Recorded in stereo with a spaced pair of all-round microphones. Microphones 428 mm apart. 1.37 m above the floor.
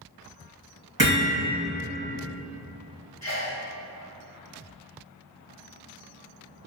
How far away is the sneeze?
About 0.6 m.